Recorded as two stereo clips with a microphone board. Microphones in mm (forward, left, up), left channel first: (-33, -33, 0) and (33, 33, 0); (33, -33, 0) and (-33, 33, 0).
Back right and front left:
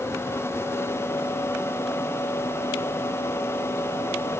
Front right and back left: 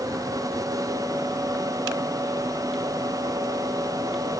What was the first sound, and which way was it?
Only background noise.